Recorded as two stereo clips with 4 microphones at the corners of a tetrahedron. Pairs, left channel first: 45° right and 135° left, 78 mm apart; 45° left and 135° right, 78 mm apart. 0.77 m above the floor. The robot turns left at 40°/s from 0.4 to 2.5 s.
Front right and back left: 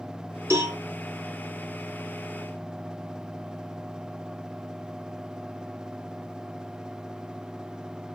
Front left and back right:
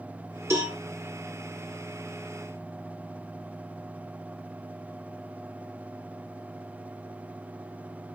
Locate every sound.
0.5 s a cowbell: 175° left, 1.7 m; by 0.8 s 165° left, 1.7 m